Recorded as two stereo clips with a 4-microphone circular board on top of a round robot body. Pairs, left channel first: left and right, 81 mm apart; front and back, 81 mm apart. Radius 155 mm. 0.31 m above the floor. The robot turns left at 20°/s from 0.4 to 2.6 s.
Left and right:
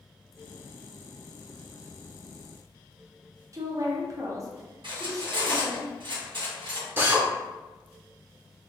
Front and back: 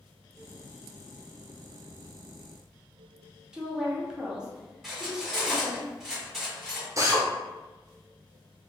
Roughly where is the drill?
Behind right.